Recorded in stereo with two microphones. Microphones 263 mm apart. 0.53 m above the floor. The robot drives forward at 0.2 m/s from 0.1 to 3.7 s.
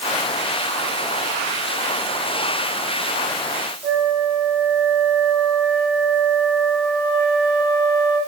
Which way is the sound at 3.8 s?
25° right (ahead or behind).